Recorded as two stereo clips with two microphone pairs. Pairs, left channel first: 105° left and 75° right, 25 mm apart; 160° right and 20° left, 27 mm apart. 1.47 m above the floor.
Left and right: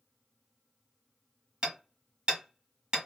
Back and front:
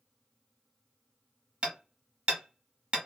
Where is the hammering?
20° right, 1.3 m.